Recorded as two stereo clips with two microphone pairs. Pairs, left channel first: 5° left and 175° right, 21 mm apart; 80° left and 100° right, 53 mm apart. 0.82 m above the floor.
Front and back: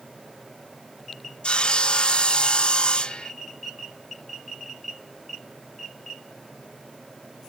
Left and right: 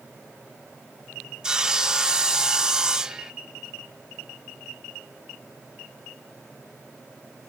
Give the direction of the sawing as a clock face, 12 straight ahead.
1 o'clock.